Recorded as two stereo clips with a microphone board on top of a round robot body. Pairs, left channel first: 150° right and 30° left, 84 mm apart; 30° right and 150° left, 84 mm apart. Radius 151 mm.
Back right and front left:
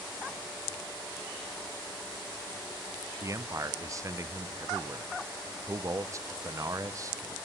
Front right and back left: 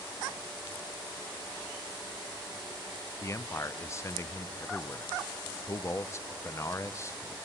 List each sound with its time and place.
3.2 s a man speaking: 10° left, 0.7 m